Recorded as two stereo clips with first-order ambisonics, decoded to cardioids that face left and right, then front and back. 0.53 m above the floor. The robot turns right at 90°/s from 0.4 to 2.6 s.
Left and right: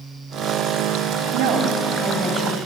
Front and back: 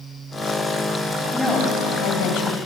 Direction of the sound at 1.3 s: 90° right.